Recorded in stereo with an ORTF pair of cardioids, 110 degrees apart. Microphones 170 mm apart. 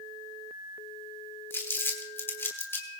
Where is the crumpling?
15° left, 3 m.